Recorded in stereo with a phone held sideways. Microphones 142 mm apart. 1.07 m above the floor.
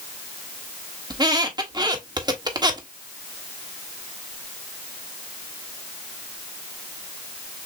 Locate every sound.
1.1 s a squeak: 30° right (ahead or behind), 1.1 m